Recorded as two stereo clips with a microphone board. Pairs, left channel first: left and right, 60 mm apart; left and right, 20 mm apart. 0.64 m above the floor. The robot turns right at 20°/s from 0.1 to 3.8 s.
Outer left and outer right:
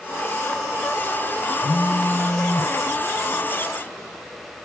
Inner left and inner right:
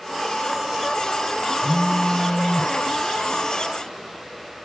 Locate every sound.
1.6 s a phone buzzing: 55° left (ahead or behind), 0.6 m; by 2.7 s 40° left (ahead or behind), 0.6 m